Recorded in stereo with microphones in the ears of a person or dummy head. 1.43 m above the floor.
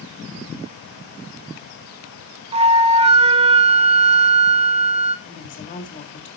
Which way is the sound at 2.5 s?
30° right (ahead or behind).